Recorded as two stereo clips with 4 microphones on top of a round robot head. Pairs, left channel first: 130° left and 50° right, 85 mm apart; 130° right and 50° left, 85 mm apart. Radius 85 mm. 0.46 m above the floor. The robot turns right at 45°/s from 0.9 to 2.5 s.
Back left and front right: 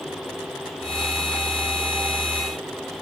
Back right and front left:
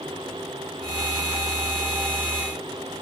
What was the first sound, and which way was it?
Only background noise.